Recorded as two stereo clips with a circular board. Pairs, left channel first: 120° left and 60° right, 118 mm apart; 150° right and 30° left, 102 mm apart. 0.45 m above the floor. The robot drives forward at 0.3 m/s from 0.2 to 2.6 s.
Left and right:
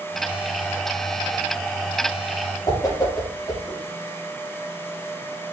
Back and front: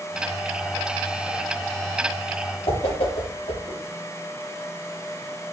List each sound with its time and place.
2.7 s a whoosh: straight behind, 2.5 m